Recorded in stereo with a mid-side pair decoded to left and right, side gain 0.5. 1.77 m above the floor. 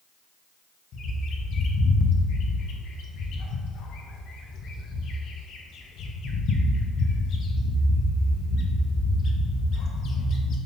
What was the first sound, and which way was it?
A bird, 60° left.